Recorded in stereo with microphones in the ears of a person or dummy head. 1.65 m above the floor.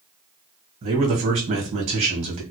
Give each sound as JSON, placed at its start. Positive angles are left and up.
{"t": 0.8, "sound": "a man speaking", "side_deg": -40, "distance_m": 1.6}